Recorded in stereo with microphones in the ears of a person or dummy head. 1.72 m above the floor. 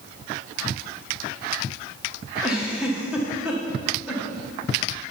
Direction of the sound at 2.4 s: 5° right (ahead or behind).